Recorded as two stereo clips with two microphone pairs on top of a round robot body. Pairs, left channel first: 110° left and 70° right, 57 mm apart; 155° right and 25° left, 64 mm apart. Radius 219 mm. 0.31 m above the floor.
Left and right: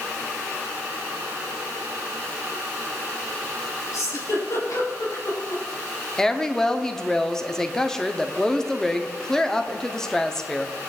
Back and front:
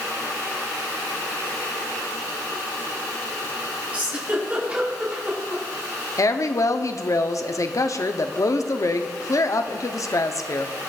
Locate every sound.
3.9 s a giggle: 85° left, 4.5 m
6.2 s a woman speaking: 160° right, 1.0 m